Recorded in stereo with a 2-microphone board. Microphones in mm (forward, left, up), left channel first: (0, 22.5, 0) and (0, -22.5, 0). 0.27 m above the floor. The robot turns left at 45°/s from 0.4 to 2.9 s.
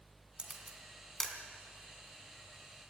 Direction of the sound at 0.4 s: 25° right (ahead or behind).